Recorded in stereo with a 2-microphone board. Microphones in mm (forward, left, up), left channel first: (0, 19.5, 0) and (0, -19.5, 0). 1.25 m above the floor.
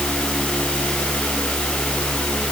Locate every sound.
Only background noise.